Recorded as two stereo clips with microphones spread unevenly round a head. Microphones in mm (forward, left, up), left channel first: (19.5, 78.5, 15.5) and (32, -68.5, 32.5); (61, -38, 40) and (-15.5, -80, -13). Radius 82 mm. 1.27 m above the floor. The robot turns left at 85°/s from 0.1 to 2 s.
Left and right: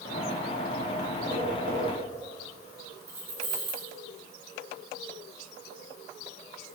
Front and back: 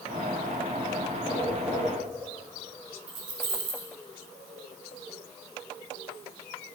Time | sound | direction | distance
1.3 | tapping | 25° right | 7.5 m
3.1 | keys jangling | 160° right | 4.5 m